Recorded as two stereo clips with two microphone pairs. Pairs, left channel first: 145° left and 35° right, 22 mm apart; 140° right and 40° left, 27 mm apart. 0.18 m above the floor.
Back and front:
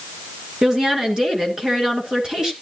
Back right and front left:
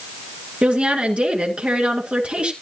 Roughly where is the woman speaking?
Ahead.